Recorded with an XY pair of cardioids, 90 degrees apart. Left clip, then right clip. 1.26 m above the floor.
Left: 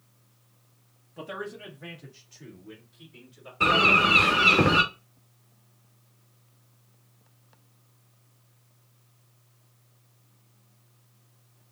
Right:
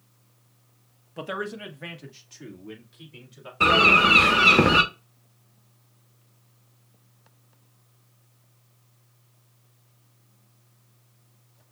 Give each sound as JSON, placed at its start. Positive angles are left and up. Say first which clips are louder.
{"t": 1.2, "sound": "a man speaking", "louder": "right 5 dB", "azimuth_deg": -50, "distance_m": 1.0}
{"t": 3.6, "sound": "a bird", "louder": "right 3 dB", "azimuth_deg": -30, "distance_m": 1.2}